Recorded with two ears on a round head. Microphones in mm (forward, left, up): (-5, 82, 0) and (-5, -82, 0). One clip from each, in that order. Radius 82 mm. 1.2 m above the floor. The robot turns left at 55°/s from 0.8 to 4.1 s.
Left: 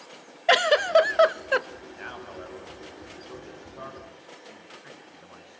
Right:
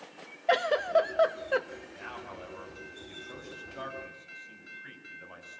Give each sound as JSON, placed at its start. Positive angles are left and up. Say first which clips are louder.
{"t": 0.5, "sound": "a giggle", "louder": "left 6 dB", "azimuth_deg": 80, "distance_m": 0.6}
{"t": 1.9, "sound": "a man speaking", "louder": "left 4 dB", "side_deg": 55, "distance_m": 8.0}